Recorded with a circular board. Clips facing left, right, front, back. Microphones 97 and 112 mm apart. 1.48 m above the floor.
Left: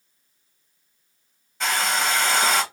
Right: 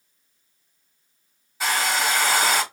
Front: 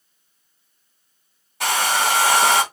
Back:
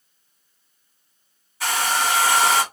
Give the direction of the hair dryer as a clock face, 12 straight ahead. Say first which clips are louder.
Even, front 2 dB; 12 o'clock.